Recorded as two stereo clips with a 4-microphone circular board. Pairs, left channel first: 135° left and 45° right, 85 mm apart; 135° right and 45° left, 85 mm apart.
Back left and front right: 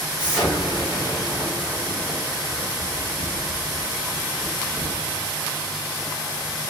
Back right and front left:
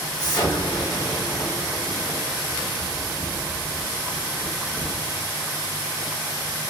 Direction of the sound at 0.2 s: 120° right.